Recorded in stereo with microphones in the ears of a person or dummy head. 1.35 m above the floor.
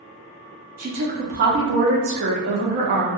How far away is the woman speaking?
About 0.6 m.